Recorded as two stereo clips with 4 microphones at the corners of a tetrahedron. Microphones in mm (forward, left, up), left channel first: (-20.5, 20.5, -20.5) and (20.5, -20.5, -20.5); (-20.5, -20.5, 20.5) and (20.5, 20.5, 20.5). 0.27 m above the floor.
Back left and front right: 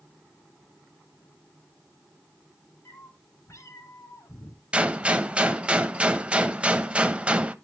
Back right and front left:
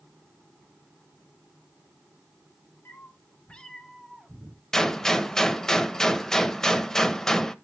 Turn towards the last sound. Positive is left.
turn(degrees=-65)